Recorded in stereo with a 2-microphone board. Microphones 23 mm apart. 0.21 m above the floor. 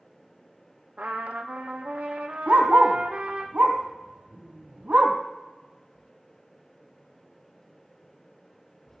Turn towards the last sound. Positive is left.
turn(degrees=-80)